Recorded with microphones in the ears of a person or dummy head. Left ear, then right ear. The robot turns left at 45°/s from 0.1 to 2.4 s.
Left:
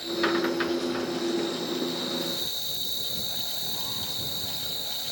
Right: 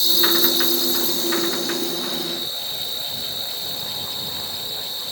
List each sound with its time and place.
0.0 s an insect: 75° right; by 5.1 s 175° right